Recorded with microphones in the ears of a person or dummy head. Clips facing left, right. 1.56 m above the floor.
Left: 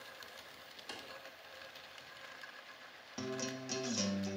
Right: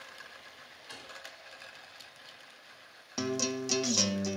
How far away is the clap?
About 3 m.